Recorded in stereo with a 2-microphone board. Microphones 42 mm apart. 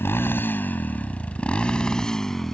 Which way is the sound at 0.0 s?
60° left (ahead or behind).